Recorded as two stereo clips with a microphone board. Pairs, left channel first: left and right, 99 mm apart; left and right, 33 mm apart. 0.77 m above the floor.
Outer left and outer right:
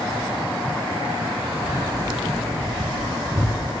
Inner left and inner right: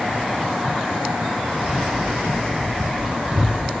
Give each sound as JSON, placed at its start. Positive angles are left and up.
{"t": 1.6, "sound": "keys jangling", "side_deg": -35, "distance_m": 1.4}